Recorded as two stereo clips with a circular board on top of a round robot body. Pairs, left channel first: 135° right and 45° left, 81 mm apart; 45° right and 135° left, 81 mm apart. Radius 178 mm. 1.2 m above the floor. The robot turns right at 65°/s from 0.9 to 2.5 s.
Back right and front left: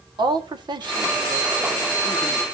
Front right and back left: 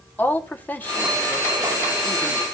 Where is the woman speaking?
25° left, 1.7 m; by 2.4 s 125° left, 1.7 m.